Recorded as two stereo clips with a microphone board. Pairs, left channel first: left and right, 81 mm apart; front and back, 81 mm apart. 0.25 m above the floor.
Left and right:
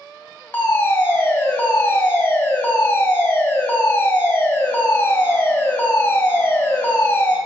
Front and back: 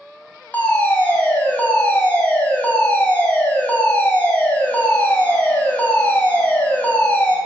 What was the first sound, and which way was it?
A fire alarm, 50° left.